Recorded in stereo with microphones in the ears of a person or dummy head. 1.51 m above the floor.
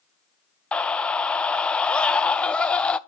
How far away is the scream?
About 0.5 m.